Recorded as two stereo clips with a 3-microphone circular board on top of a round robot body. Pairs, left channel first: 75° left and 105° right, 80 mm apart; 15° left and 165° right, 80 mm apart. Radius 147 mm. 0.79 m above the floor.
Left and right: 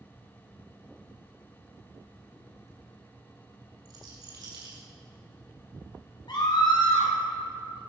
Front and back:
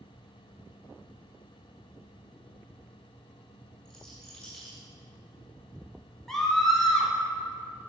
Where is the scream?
100° left, 3 m.